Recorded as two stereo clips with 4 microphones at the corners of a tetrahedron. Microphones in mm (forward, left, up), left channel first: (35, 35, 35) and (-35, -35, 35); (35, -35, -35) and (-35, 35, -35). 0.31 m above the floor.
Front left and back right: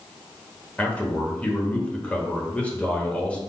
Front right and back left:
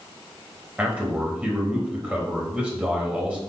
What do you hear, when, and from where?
0.8 s a man speaking: 90° left, 1.1 m